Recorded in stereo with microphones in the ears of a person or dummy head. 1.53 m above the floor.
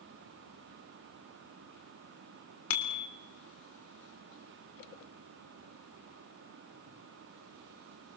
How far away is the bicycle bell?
About 3.5 m.